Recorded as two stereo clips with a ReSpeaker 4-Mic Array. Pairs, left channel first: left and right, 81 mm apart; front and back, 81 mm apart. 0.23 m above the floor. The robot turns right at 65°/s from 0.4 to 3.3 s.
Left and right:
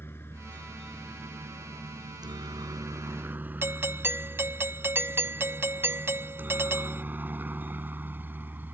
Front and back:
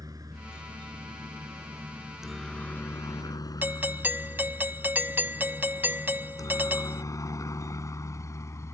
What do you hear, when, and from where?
0.0 s a helicopter: 145° left; by 8.7 s 35° right
3.6 s a doorbell: 130° right